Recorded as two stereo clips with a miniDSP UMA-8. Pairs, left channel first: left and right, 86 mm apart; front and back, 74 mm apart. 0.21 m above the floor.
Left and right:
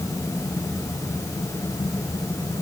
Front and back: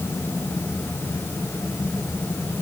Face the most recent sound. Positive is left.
No sound to turn to.